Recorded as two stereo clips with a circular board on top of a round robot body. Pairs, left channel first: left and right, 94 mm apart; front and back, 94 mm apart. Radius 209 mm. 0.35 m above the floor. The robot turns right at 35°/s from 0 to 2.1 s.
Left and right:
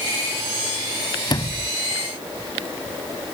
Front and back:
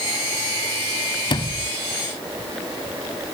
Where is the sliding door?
40° left; by 1.7 s 55° left.